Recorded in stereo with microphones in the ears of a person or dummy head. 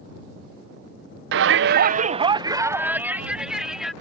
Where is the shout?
65° right (ahead or behind); by 3.9 s 10° left (ahead or behind).